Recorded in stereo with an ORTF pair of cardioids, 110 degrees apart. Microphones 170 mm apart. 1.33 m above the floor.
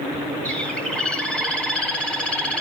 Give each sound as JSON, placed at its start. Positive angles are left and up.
{"t": 0.5, "sound": "a bird", "azimuth_deg": 5, "distance_m": 1.6}